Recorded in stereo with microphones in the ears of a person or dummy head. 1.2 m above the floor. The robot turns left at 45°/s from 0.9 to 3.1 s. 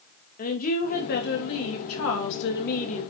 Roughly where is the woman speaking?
Behind left.